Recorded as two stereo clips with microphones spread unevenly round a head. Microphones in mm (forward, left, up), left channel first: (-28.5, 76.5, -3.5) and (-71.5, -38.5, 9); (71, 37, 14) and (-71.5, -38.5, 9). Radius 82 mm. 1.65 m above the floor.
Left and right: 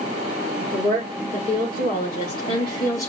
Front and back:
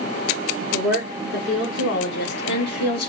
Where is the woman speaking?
10° left, 3 m; by 3.1 s 5° right, 1.1 m.